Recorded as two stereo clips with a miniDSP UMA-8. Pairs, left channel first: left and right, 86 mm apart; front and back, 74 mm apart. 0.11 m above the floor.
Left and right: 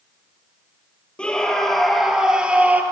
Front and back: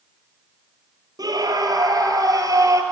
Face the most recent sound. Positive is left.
turn(degrees=-155)